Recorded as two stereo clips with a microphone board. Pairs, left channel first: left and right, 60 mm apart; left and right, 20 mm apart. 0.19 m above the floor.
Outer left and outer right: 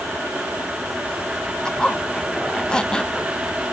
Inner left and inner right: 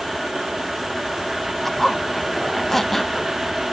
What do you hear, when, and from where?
1.6 s a zipper: 15° left (ahead or behind), 0.6 m